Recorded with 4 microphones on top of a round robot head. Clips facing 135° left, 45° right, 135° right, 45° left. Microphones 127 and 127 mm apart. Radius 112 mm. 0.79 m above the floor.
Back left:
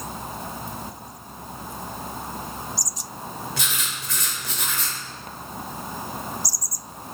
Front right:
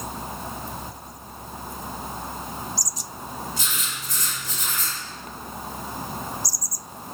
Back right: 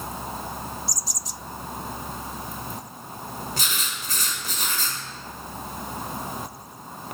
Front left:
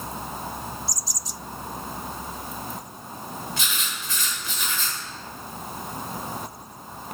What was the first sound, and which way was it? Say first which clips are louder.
Writing: back left 1 dB, even; 170° left.